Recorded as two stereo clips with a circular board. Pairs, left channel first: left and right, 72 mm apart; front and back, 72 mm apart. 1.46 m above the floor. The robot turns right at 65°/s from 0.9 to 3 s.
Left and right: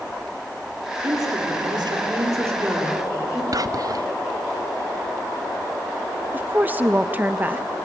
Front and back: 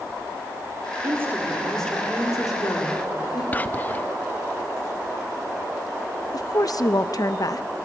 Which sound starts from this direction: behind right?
A woman speaking, at 1.0 s.